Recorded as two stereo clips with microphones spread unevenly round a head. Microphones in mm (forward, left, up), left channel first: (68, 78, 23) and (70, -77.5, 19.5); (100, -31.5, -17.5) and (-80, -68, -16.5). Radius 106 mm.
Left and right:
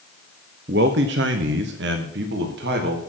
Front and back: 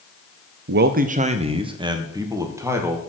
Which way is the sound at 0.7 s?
140° right.